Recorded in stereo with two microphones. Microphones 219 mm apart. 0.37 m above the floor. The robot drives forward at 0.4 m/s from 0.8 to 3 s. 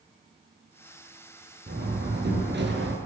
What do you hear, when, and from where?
1.7 s a door slam: 50° right (ahead or behind), 5.5 m; by 3.0 s 55° right (ahead or behind), 5 m